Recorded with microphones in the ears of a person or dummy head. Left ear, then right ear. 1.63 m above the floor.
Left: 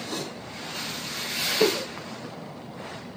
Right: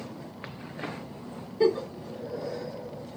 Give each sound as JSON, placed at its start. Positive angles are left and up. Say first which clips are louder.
{"t": 1.6, "sound": "a giggle", "louder": "right 1 dB", "side_deg": -10, "distance_m": 0.9}